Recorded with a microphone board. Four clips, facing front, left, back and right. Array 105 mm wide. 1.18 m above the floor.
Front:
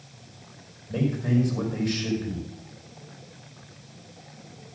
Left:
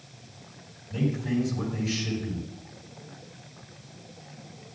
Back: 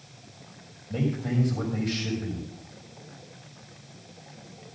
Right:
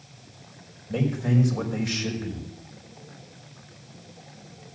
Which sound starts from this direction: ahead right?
A man speaking, at 0.9 s.